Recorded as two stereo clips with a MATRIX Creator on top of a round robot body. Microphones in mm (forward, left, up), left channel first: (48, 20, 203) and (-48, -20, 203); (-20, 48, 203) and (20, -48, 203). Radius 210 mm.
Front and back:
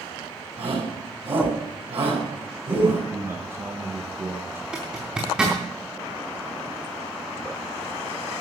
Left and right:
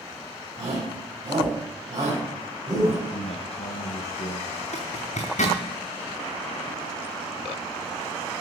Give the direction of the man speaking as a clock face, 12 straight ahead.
8 o'clock.